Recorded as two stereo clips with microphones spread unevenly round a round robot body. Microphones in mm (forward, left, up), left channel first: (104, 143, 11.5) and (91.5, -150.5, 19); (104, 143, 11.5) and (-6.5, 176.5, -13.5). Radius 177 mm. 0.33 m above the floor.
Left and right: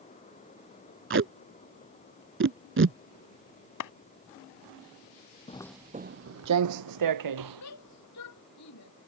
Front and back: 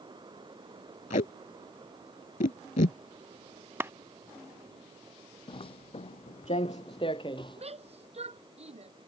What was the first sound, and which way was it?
Tape being pulled, 40° right.